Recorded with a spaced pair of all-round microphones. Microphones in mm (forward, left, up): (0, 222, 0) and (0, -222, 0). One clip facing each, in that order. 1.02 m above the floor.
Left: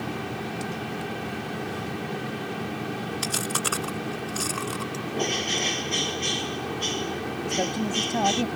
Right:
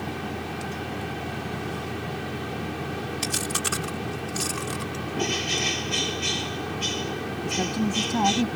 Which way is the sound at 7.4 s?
15° right (ahead or behind).